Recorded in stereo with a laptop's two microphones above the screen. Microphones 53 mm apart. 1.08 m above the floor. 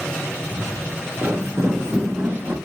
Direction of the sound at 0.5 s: 60° right (ahead or behind).